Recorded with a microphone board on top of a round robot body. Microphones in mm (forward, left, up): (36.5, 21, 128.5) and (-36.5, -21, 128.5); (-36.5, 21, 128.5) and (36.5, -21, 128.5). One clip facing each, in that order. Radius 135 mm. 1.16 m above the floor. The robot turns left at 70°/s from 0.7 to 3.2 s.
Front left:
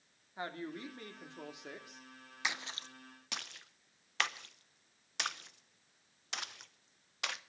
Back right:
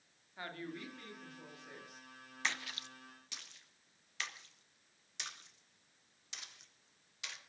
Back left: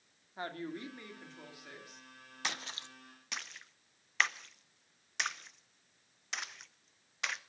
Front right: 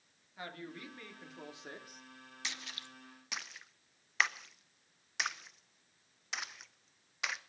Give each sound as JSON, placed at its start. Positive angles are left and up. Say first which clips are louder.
{"t": 0.4, "sound": "a woman speaking", "louder": "front left 3 dB, back left 5 dB", "azimuth_deg": 95, "distance_m": 3.0}
{"t": 2.4, "sound": "a splash", "louder": "front left 1 dB, back left 6 dB", "azimuth_deg": 110, "distance_m": 0.9}